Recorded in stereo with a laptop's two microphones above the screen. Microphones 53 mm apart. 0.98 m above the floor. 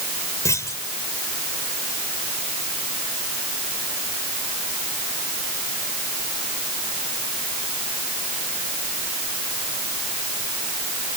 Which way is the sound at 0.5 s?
70° left (ahead or behind).